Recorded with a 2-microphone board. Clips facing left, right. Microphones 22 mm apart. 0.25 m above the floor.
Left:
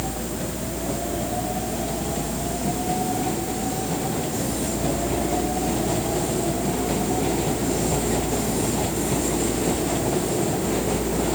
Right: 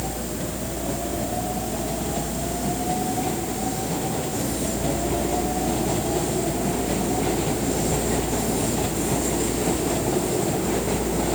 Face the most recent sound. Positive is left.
No sound to turn to.